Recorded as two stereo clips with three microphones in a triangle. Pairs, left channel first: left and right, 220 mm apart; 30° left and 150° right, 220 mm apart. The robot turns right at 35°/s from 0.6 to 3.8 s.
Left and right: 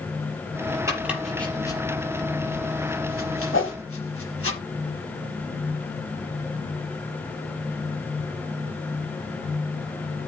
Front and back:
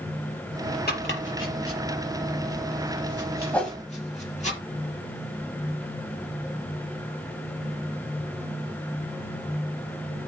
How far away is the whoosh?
About 2.5 m.